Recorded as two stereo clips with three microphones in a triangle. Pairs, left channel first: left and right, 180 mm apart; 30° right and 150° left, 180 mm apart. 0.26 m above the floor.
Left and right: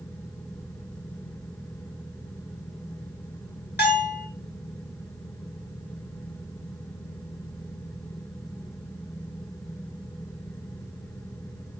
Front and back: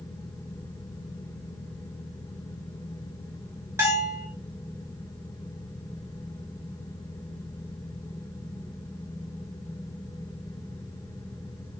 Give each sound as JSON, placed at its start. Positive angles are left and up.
{"t": 3.8, "sound": "a bell", "azimuth_deg": 75, "distance_m": 4.5}